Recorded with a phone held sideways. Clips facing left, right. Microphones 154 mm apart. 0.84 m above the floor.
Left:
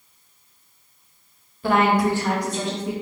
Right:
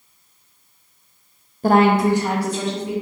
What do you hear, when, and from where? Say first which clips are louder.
1.6 s a woman speaking: right 4 dB; 40° right (ahead or behind), 0.5 m; by 2.9 s 5° left (ahead or behind), 1.0 m